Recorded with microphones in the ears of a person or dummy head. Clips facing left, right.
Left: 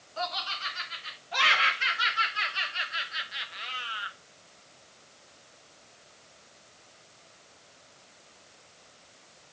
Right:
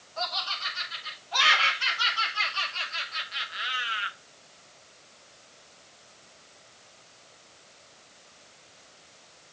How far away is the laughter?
About 2 m.